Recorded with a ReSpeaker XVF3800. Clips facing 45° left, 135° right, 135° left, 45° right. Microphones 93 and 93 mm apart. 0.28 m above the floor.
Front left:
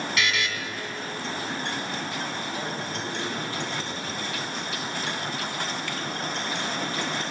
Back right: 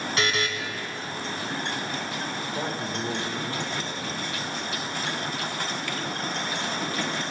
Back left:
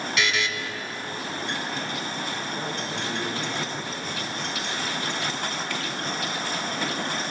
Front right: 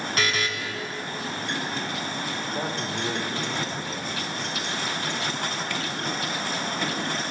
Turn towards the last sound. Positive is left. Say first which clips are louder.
# back right 2 dB, front right 1 dB
turn(degrees=-50)